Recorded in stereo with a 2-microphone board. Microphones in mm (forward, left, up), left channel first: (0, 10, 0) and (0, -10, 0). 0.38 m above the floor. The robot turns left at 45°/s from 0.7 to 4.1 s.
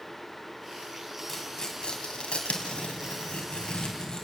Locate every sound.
1.3 s tearing paper: 20° left (ahead or behind), 3 m; by 4.2 s 30° left (ahead or behind), 3 m